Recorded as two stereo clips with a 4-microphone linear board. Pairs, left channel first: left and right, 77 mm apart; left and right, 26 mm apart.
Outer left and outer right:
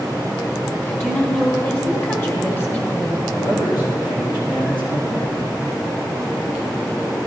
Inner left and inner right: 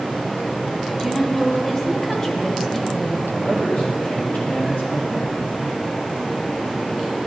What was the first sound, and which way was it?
A woman speaking, 25° left (ahead or behind).